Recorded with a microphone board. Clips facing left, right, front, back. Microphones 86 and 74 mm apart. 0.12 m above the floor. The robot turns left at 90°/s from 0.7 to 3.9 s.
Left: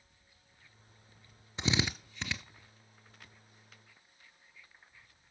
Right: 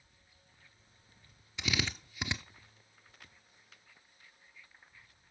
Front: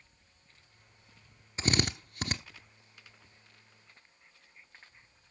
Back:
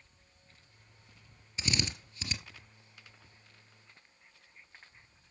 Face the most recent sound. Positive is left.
turn(degrees=-165)